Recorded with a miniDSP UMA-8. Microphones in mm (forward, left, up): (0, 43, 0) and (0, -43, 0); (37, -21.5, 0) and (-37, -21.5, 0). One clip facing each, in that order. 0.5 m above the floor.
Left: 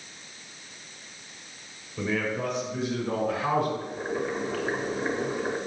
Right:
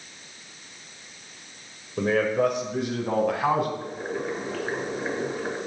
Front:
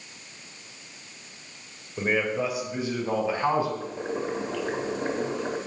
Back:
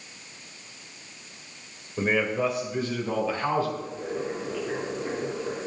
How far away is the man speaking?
About 1.9 m.